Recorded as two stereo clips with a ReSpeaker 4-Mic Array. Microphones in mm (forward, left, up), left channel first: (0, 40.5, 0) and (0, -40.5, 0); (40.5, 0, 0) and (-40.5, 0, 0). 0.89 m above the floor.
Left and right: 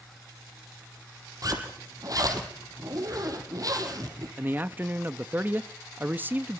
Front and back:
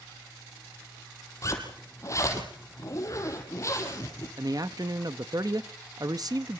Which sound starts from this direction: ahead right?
A zipper, at 1.4 s.